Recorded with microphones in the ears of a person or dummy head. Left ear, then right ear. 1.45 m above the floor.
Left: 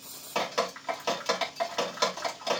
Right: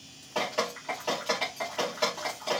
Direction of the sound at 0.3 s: 55° left (ahead or behind).